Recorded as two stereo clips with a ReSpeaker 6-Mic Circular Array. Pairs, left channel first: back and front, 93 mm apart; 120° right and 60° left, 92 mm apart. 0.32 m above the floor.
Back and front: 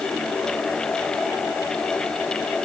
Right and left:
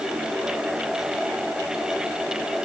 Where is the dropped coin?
I don't hear a dropped coin.